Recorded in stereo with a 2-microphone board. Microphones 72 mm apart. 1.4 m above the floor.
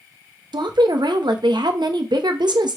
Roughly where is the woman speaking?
Right.